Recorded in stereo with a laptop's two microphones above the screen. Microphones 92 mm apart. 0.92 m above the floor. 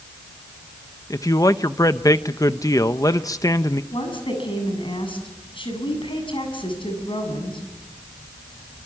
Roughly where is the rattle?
I don't hear a rattle.